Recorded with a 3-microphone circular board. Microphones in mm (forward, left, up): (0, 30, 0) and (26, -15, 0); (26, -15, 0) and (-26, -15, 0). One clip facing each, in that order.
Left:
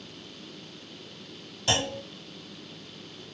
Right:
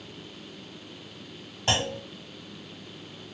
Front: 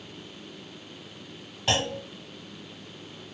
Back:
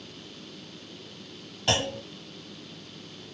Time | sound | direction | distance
1.7 | a clunk | 85° right | 1.6 m